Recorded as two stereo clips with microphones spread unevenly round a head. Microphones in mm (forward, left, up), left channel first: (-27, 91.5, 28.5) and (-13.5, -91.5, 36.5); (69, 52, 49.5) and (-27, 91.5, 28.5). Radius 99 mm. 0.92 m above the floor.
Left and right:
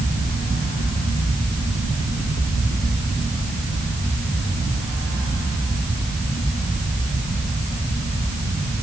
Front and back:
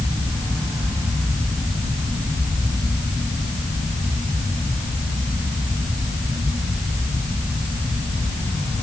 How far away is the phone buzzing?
I don't hear a phone buzzing.